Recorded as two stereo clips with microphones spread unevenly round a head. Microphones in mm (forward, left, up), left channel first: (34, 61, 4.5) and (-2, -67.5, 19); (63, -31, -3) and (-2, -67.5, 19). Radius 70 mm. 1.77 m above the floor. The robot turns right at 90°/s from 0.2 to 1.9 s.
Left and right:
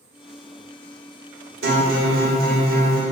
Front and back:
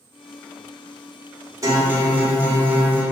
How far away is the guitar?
About 1.6 m.